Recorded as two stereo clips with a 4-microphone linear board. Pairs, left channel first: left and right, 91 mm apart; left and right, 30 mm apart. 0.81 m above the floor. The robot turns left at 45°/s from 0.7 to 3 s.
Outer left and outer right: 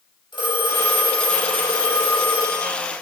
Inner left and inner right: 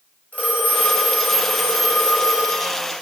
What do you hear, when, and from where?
0.3 s a phone ringing: 105° left, 3.5 m; by 2.8 s 15° left, 3.5 m